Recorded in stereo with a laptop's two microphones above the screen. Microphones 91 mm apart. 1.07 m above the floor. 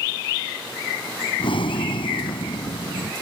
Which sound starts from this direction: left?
Breathing, at 1.4 s.